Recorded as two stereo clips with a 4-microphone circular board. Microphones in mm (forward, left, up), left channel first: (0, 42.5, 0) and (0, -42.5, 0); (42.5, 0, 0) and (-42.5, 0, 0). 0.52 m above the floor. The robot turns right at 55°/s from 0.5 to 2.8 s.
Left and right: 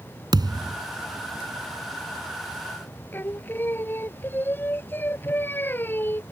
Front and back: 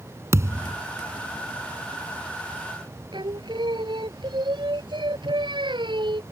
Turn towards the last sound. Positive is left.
turn(degrees=155)